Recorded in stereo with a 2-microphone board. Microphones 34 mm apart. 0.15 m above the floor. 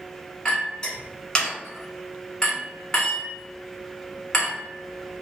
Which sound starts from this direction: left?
A clink, at 0.5 s.